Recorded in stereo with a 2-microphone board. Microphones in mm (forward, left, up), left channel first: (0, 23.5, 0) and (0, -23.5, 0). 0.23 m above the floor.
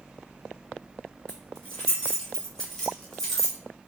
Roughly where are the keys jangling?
Centre.